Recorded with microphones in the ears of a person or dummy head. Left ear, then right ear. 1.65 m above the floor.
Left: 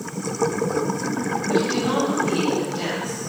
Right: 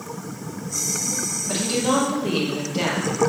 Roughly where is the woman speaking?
Right.